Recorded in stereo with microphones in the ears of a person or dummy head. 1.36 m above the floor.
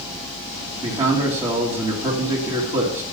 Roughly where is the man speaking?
Right.